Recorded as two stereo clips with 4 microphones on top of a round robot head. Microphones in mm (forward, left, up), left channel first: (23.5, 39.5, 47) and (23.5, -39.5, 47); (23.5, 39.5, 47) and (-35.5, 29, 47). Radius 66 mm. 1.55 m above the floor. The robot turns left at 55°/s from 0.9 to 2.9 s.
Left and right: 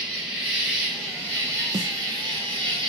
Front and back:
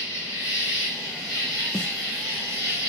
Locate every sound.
0.0 s an insect: 15° right, 1.8 m; by 2.9 s 125° right, 1.8 m
1.7 s a snare drum: 55° right, 0.6 m; by 1.9 s 65° right, 0.6 m